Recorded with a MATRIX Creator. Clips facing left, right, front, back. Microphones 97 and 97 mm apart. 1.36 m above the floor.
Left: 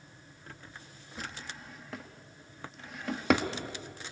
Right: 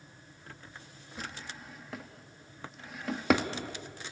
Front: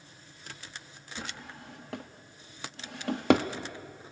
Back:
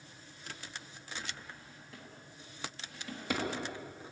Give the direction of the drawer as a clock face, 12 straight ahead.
12 o'clock.